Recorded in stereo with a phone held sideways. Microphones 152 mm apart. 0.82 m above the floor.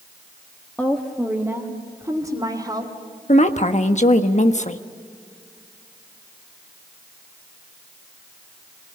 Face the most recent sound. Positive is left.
turn(degrees=50)  # may be behind; listen again after turning